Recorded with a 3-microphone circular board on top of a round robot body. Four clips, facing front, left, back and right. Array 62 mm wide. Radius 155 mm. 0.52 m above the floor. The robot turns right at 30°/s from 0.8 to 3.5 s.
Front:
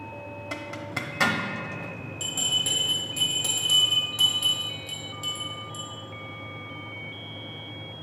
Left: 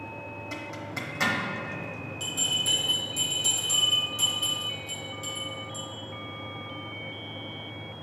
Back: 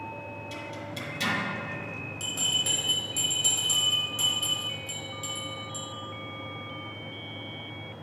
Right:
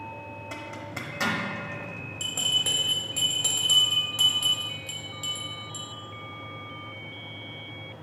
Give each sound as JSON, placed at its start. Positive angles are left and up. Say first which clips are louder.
{"t": 0.5, "sound": "a zipper", "louder": "left 1 dB, front 6 dB", "azimuth_deg": -10, "distance_m": 0.9}
{"t": 2.2, "sound": "a bell", "louder": "right 3 dB, front 2 dB", "azimuth_deg": -105, "distance_m": 1.6}